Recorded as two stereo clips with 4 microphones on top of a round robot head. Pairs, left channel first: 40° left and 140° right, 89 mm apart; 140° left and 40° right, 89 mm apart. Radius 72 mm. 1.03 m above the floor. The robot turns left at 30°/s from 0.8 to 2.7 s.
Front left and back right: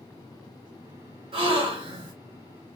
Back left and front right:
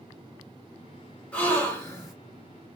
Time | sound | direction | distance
1.3 | a gasp | 140° right | 2.5 m